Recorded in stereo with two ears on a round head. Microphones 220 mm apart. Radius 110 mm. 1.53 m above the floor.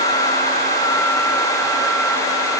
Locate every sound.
Only background noise.